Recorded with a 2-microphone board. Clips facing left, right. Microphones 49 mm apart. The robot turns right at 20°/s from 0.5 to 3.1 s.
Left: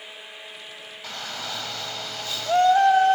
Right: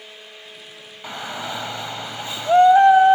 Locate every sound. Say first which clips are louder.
1.0 s a shout: right 5 dB; 20° right (ahead or behind), 1.2 m